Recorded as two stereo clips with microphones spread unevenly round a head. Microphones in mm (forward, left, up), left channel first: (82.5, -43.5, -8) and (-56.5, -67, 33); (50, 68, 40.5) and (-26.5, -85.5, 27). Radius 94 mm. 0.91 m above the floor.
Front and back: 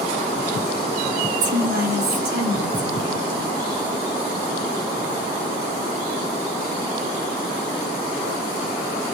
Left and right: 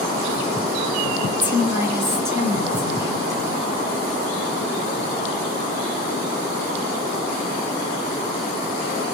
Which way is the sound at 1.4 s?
165° left.